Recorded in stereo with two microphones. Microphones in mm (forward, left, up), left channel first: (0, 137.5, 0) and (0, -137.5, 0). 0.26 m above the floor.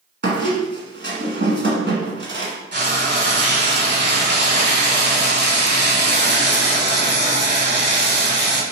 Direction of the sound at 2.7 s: 40° right (ahead or behind).